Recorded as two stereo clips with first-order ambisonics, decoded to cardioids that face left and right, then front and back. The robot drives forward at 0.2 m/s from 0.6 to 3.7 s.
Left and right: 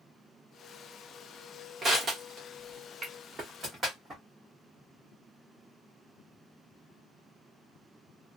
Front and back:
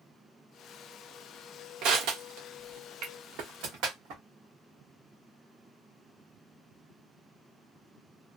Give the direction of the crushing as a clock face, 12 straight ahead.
5 o'clock.